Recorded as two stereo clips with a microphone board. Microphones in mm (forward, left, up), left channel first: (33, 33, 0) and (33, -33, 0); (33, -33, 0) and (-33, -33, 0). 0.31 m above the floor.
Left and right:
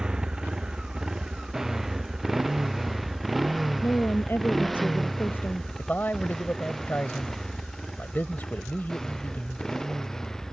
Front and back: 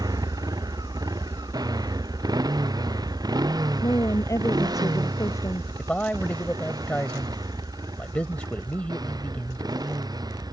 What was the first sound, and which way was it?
A motorcycle, 170° right.